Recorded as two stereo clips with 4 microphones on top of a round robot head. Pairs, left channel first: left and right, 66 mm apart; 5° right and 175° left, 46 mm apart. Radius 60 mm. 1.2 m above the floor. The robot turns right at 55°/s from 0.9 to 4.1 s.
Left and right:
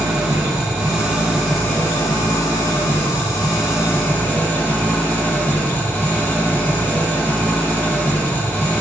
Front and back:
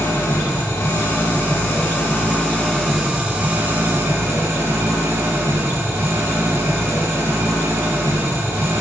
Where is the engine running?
30° right, 5.5 m; by 8.8 s 150° left, 5.5 m.